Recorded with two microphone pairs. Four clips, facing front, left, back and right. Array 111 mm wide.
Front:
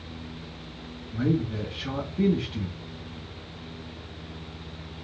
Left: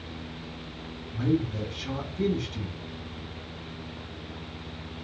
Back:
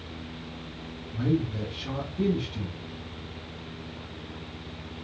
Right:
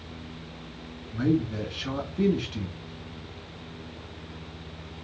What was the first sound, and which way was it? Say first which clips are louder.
A man speaking: right 2 dB, front 1 dB; 55° right.